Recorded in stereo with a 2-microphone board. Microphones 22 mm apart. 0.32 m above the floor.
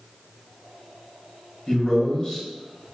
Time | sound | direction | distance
1.7 | a man speaking | 40° left (ahead or behind) | 1.3 m